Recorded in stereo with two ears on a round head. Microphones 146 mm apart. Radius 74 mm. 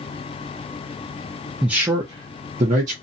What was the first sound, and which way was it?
A man speaking, 5° right (ahead or behind).